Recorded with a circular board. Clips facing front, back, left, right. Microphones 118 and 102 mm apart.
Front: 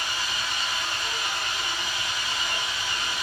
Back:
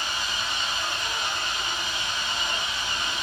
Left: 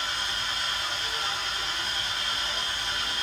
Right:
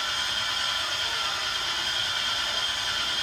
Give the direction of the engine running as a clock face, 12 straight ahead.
4 o'clock.